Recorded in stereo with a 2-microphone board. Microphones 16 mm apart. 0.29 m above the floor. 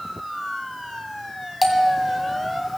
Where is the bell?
5° right (ahead or behind), 2.0 m.